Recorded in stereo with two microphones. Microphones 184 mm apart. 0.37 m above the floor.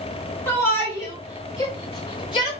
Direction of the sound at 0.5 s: 10° left (ahead or behind).